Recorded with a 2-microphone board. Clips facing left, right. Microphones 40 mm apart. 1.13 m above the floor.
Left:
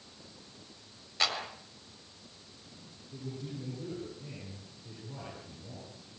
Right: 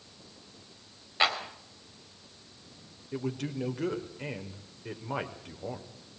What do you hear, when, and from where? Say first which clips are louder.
1.2 s a clap: right 5 dB; 20° right (ahead or behind), 3.5 m
3.1 s a man speaking: right 8 dB; 80° right, 4 m